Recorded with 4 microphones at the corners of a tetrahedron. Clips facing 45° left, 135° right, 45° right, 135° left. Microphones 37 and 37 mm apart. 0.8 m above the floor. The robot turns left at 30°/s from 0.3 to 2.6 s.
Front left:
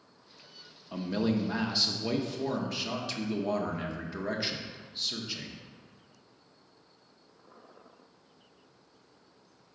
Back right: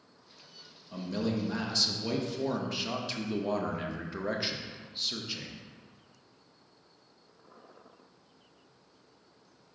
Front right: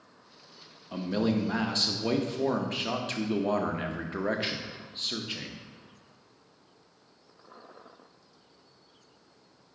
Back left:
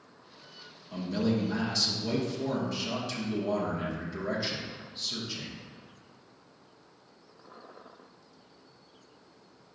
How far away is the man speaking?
About 0.5 m.